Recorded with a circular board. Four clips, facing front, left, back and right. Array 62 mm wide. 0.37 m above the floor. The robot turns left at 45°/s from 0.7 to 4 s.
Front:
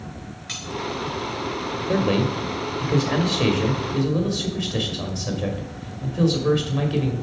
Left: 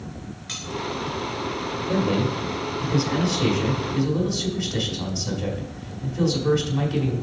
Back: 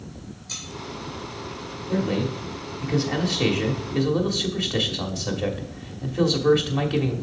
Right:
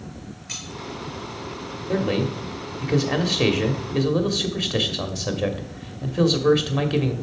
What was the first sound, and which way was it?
Cutlery clinking, 40° left.